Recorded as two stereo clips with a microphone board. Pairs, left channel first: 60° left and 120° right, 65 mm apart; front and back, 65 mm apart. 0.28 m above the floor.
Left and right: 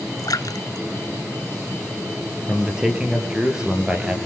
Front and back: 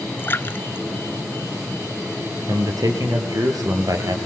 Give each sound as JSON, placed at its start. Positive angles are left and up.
{"t": 0.2, "sound": "a splash", "azimuth_deg": 55, "distance_m": 1.0}
{"t": 2.5, "sound": "a man speaking", "azimuth_deg": 160, "distance_m": 5.0}